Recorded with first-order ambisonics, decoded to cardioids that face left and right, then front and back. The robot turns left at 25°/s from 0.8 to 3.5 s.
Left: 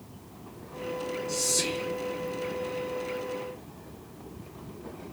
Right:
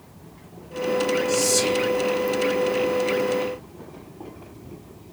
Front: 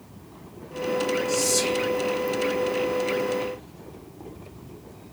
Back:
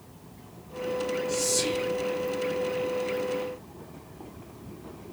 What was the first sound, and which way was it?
Whispering, 60° right.